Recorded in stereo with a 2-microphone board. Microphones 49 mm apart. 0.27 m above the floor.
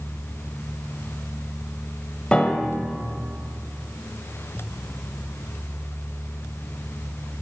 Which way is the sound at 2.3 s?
20° left (ahead or behind).